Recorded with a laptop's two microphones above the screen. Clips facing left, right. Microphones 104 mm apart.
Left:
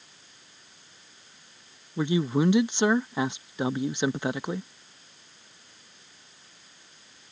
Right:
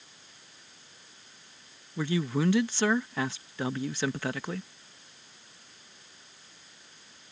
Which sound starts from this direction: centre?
A man speaking, at 2.0 s.